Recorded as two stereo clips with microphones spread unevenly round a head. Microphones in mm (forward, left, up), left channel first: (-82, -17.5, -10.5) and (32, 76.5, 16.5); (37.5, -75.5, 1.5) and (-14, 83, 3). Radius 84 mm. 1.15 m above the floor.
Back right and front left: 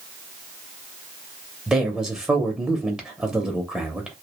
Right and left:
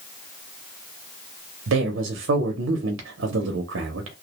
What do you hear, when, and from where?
1.7 s a man speaking: 125° left, 0.5 m